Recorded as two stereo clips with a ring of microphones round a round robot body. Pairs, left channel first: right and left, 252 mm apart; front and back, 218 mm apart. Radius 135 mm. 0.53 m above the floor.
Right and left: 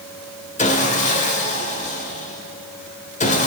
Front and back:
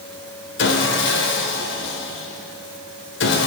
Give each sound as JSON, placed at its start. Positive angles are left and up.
{"t": 0.6, "sound": "sawing", "azimuth_deg": -30, "distance_m": 1.4}